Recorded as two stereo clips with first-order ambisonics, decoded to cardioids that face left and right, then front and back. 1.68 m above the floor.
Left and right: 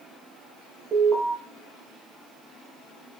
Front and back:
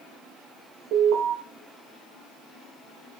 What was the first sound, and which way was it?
An alarm, 160° right.